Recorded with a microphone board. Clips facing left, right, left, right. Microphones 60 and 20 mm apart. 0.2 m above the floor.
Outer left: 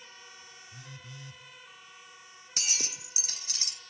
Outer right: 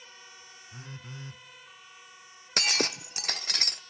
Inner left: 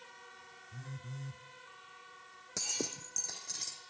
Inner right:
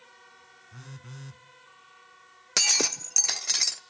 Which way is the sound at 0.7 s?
45° right (ahead or behind).